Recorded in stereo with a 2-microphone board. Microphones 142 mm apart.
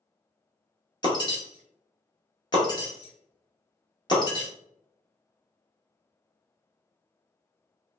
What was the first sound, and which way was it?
Breaking glass, 35° left (ahead or behind).